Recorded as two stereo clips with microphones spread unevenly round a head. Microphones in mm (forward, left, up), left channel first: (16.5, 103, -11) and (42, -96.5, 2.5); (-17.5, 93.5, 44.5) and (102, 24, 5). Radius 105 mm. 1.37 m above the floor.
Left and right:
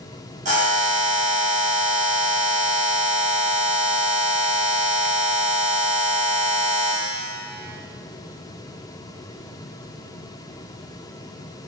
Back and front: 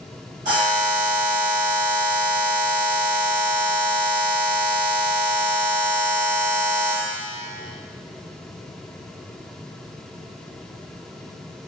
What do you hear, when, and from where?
0.5 s a buzzer: 70° right, 1.1 m